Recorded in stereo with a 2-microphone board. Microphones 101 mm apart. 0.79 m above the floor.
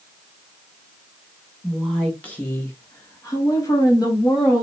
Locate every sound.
1.6 s a woman speaking: 5° left (ahead or behind), 0.9 m; by 4.6 s 40° left (ahead or behind), 1.4 m